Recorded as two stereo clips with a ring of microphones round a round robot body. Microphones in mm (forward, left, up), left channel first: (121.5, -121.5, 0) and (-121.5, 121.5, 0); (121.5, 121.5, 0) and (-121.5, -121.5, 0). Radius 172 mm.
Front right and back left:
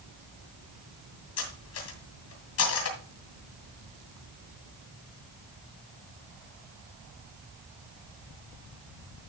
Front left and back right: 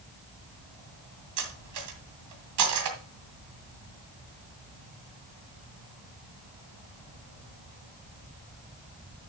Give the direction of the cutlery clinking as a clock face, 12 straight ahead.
3 o'clock.